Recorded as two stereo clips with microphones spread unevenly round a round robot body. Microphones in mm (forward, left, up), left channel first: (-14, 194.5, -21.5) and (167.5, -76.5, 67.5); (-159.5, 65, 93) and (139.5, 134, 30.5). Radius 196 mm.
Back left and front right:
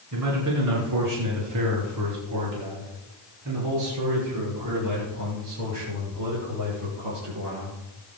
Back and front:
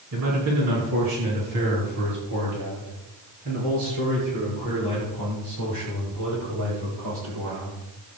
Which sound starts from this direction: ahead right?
A man speaking, at 0.1 s.